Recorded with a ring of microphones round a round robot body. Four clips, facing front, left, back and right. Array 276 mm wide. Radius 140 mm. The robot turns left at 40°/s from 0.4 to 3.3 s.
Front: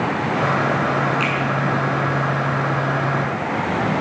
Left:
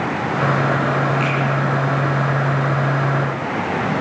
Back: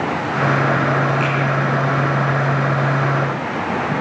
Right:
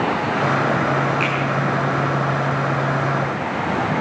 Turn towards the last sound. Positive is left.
turn(degrees=-130)